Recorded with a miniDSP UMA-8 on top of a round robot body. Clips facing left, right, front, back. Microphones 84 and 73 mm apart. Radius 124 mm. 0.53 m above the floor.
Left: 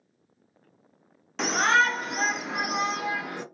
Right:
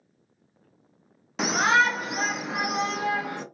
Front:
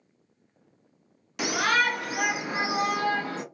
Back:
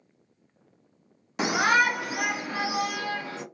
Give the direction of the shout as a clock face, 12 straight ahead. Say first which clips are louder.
Right 1 dB, back 2 dB; 6 o'clock.